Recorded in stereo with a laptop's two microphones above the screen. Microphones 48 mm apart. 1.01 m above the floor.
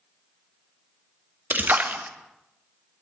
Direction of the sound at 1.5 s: 45° right (ahead or behind).